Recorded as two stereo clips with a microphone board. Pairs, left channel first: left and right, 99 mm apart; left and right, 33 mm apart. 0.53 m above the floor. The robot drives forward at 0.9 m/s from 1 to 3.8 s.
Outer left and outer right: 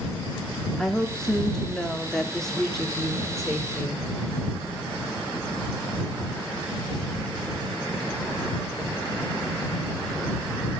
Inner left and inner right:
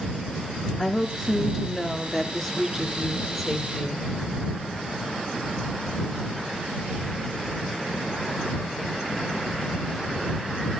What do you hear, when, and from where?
0.8 s a woman speaking: 5° left (ahead or behind), 1.1 m; by 4.1 s centre (ahead or behind), 2.5 m